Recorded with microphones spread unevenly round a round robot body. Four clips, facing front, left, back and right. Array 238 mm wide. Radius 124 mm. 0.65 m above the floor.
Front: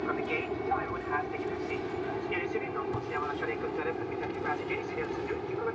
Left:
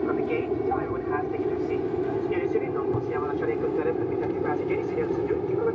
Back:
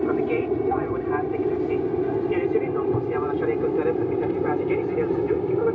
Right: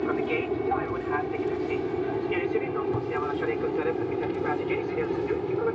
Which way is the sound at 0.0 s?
170° left.